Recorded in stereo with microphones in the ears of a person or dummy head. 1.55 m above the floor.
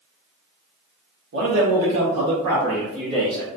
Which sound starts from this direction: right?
A man speaking, at 1.3 s.